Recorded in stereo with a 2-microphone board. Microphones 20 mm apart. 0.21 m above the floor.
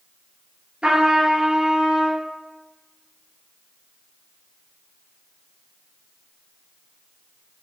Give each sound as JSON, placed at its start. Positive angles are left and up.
{"t": 0.8, "sound": "a trumpet", "side_deg": -80, "distance_m": 0.8}